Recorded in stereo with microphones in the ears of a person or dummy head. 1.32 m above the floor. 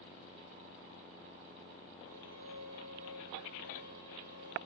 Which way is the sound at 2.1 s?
40° right (ahead or behind).